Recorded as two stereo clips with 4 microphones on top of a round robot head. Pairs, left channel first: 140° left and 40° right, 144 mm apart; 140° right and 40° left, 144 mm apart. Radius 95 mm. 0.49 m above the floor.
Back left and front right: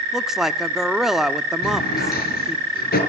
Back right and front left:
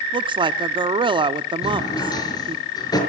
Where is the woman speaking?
45° left, 1.3 m.